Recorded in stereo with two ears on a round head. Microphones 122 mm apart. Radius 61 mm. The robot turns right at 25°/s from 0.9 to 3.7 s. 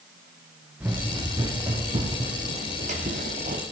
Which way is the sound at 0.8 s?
15° right (ahead or behind).